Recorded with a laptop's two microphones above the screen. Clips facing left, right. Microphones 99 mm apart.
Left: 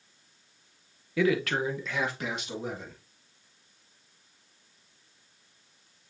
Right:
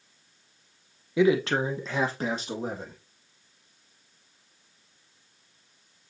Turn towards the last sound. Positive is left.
turn(degrees=-35)  # may be behind; listen again after turning